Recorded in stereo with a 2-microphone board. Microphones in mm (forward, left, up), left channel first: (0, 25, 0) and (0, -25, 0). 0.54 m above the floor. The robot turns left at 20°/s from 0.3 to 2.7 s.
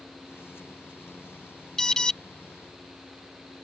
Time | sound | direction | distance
1.8 | an alarm | 10° left (ahead or behind) | ?